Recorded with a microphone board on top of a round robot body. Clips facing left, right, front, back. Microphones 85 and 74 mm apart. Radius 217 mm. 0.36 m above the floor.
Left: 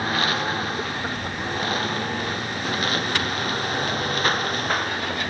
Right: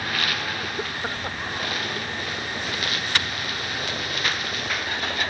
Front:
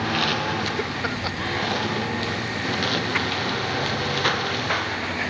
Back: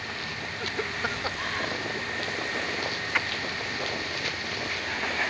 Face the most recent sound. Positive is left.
turn(degrees=35)